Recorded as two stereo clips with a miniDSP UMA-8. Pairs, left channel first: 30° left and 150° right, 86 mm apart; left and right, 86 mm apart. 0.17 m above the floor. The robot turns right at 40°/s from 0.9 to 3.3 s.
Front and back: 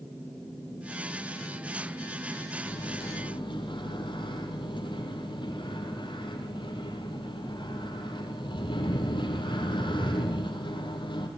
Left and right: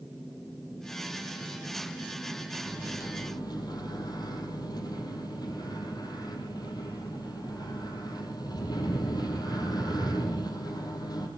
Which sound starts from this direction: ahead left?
A microwave, at 2.7 s.